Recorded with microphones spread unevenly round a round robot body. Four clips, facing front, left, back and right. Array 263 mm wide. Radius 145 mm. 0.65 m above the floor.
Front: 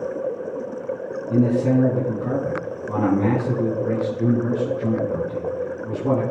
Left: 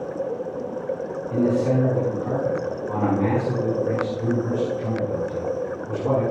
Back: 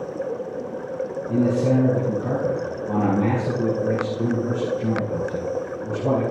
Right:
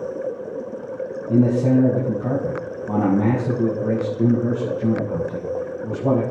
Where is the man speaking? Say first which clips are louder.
Right 4 dB, front 2 dB; 100° right, 5 m.